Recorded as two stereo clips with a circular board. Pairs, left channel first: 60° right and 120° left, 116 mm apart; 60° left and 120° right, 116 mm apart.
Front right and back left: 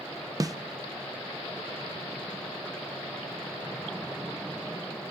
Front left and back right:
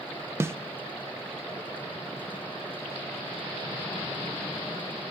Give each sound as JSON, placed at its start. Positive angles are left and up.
{"t": 0.4, "sound": "a snare drum", "azimuth_deg": 175, "distance_m": 0.7}